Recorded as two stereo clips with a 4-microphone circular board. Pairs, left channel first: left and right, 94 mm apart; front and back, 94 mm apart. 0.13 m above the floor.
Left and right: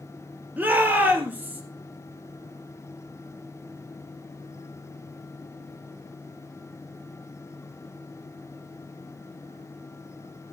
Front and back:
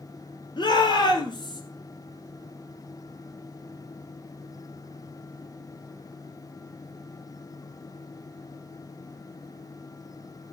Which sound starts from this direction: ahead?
A shout, at 0.6 s.